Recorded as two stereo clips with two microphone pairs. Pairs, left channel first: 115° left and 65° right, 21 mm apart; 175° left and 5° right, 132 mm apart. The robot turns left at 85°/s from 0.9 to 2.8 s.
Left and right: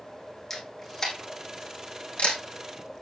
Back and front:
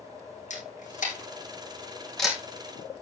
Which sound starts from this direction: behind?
A camera shutter, at 0.5 s.